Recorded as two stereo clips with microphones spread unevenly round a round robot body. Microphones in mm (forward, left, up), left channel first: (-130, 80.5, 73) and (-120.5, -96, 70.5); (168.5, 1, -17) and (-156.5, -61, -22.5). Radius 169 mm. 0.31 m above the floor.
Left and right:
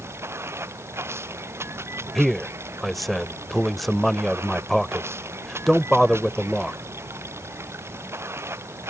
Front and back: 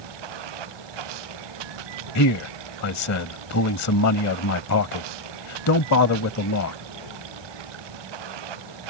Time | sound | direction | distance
0.0 | running water | 165° right | ?
2.1 | a man speaking | 5° left | ?